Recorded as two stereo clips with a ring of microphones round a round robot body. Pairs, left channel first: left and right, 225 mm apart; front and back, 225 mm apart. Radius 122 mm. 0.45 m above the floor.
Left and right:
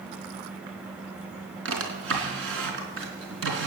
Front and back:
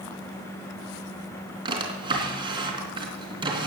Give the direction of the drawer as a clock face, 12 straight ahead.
4 o'clock.